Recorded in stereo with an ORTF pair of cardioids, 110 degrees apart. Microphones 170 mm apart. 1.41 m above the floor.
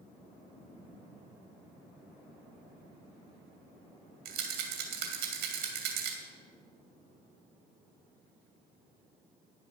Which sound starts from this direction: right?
A rattle, at 4.2 s.